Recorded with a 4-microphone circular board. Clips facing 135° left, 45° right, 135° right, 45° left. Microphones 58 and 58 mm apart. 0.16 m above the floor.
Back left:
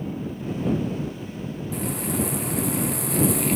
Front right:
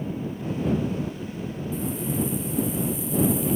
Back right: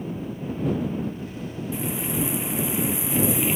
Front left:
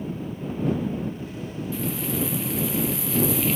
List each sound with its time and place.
1.7 s frying: 155° left